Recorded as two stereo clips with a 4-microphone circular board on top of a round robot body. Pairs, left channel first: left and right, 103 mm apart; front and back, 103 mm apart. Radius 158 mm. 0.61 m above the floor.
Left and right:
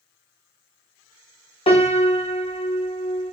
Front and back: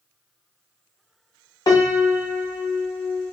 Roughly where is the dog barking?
I don't hear a dog barking.